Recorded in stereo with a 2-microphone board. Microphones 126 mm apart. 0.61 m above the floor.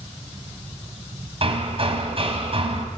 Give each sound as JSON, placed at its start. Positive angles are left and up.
{"t": 1.4, "sound": "hammering", "side_deg": -50, "distance_m": 3.5}